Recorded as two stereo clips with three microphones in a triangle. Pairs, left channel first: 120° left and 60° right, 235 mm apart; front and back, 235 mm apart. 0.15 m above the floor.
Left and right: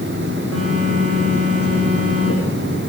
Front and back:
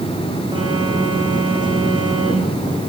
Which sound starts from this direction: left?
A phone buzzing, at 0.5 s.